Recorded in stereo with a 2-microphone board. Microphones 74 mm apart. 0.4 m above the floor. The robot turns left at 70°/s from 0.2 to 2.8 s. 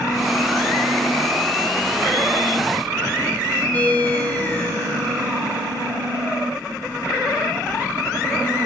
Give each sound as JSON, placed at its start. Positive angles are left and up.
{"t": 3.7, "sound": "a ringtone", "side_deg": 20, "distance_m": 1.9}